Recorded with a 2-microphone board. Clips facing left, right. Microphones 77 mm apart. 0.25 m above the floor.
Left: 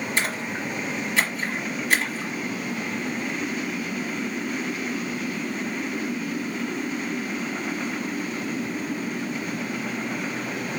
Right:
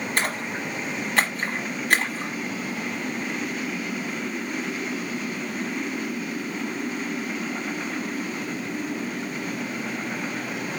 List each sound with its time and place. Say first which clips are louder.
0.2 s a splash: right 1 dB; 55° right (ahead or behind), 1.3 m